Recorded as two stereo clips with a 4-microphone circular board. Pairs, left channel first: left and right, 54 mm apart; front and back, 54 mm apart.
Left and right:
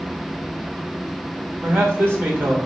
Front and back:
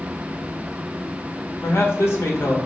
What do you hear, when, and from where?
1.6 s a man speaking: 40° right, 1.5 m